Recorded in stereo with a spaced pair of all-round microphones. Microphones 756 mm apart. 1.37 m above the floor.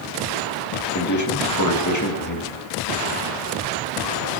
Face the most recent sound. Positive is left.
turn(degrees=25)  # may be behind; listen again after turning